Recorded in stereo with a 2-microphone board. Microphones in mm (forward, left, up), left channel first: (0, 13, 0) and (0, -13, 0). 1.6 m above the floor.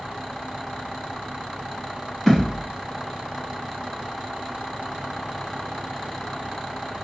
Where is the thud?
5° right (ahead or behind), 2.0 m.